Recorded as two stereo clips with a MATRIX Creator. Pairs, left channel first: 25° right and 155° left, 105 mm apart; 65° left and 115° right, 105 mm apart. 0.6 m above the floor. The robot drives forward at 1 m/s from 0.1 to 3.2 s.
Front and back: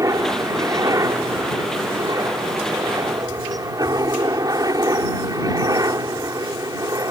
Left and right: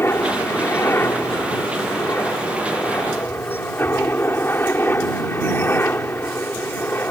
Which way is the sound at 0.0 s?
120° left.